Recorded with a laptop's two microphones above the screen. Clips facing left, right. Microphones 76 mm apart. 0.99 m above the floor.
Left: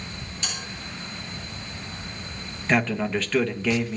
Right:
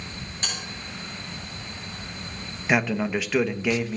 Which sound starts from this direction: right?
A bell, at 0.4 s.